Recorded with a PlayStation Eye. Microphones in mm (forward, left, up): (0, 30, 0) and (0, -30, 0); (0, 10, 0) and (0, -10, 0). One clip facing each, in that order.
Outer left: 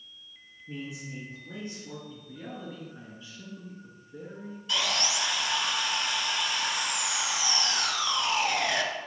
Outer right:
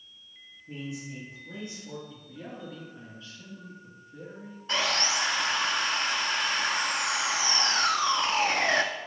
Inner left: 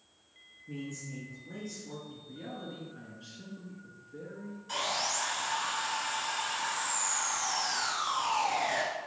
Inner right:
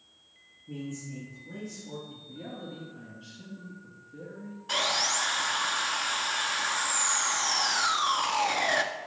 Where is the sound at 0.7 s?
15° left (ahead or behind), 2 m; by 2.0 s 35° left (ahead or behind), 2.5 m.